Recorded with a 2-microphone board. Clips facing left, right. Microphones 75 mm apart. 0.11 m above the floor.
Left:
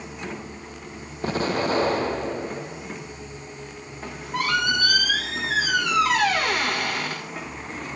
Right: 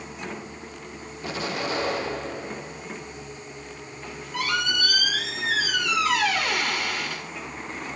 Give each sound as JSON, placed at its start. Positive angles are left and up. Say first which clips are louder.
{"t": 1.2, "sound": "an explosion", "louder": "left 6 dB", "side_deg": 40, "distance_m": 1.5}
{"t": 4.0, "sound": "a squeak", "louder": "left 3 dB", "side_deg": 50, "distance_m": 3.0}